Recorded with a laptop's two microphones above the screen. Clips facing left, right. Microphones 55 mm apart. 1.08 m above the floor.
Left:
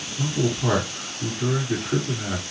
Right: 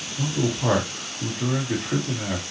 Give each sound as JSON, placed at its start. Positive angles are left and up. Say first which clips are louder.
{"t": 0.2, "sound": "a man speaking", "louder": "even", "side_deg": -55, "distance_m": 1.8}